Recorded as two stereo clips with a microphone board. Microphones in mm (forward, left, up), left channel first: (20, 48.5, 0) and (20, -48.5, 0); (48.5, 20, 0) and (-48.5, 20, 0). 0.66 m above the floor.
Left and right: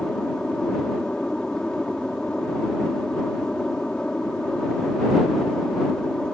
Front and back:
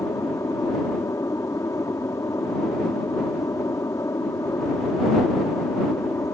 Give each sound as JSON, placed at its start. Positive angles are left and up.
{"t": 0.0, "sound": "an aircraft", "azimuth_deg": 10}